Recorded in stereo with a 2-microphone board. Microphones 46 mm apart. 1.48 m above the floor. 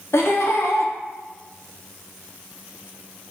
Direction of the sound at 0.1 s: 80° left.